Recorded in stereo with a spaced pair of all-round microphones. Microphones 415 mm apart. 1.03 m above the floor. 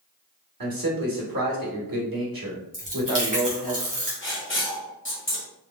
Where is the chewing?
50° right (ahead or behind), 1.6 m.